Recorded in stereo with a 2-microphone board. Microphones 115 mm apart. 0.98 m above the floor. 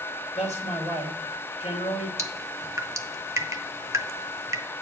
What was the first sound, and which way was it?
A man speaking, 75° left (ahead or behind).